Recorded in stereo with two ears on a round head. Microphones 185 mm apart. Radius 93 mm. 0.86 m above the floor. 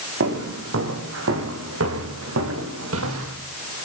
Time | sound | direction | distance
0.2 | footsteps | 65° right (ahead or behind) | 8 m